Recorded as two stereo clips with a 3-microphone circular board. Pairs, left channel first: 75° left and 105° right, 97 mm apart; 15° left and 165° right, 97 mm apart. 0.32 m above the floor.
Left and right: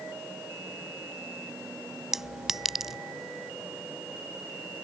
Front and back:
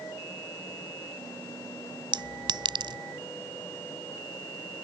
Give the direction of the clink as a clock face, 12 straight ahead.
6 o'clock.